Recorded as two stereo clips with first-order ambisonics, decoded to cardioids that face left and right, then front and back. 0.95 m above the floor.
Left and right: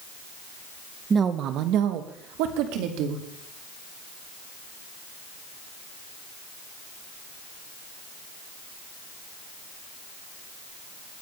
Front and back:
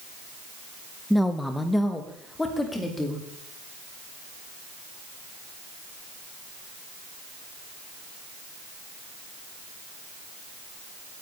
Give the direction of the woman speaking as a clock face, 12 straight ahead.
3 o'clock.